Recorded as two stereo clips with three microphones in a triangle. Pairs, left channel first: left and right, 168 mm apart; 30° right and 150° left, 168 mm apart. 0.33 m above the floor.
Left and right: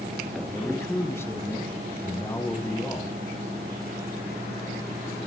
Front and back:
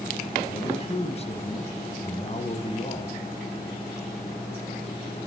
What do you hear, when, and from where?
0.5 s a man speaking: 15° left, 2.5 m